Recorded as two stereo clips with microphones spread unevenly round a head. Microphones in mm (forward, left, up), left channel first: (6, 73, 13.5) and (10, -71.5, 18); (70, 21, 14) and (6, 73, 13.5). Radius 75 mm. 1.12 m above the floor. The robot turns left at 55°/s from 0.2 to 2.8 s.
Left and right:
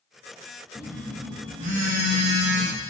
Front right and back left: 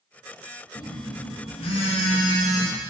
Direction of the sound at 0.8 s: Straight ahead.